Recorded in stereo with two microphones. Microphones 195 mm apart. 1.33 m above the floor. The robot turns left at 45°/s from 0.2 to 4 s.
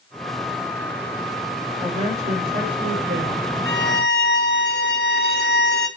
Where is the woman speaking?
20° right, 4.5 m; by 3.5 s 100° right, 4.5 m.